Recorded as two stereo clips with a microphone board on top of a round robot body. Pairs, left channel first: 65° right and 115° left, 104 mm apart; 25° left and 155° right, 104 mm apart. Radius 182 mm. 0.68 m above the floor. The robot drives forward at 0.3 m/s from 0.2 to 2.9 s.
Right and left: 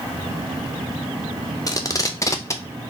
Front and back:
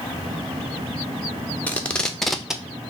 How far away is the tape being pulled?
About 0.9 m.